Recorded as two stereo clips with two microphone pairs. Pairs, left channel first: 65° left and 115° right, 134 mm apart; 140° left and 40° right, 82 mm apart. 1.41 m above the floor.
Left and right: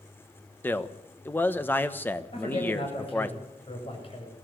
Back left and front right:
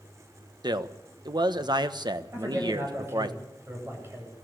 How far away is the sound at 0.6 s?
About 1.1 m.